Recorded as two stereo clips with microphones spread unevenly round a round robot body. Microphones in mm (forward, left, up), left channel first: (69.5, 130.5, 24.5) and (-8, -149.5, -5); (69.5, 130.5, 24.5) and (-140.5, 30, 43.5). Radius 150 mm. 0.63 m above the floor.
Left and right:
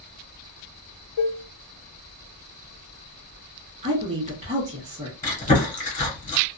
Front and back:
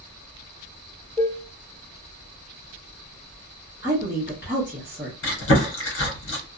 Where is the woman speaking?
70° right, 1.1 m.